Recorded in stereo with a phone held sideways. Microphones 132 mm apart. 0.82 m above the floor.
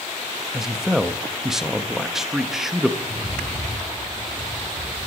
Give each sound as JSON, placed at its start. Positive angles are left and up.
{"t": 0.5, "sound": "a man speaking", "side_deg": -5, "distance_m": 0.7}
{"t": 3.0, "sound": "a rattle", "side_deg": -60, "distance_m": 6.0}